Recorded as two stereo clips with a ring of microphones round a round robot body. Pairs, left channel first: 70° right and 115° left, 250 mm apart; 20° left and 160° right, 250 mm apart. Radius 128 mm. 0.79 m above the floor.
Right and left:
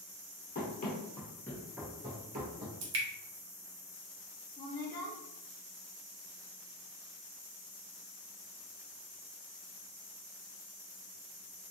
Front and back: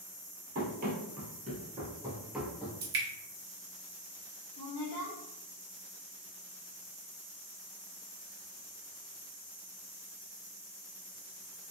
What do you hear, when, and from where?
0.6 s running footsteps: 110° right, 1.2 m; by 2.7 s 105° left, 0.9 m
2.8 s dripping: 150° left, 0.8 m
4.6 s a woman speaking: 20° right, 0.8 m